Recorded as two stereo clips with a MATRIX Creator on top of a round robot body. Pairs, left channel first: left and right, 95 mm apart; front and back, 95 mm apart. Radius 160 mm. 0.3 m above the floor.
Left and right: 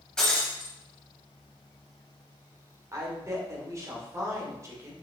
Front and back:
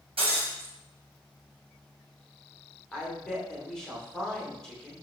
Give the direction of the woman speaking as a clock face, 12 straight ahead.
3 o'clock.